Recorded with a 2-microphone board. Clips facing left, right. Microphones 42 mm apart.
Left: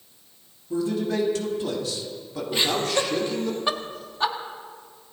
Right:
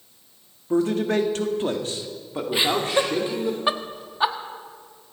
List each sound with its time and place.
0.7 s a man speaking: 55° right (ahead or behind), 1.9 m; by 3.5 s 15° right (ahead or behind), 3 m
2.5 s laughter: 20° right (ahead or behind), 1.4 m